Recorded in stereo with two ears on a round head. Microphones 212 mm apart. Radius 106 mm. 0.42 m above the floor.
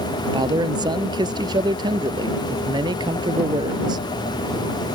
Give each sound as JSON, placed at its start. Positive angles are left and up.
{"t": 0.3, "sound": "a man speaking", "side_deg": -20}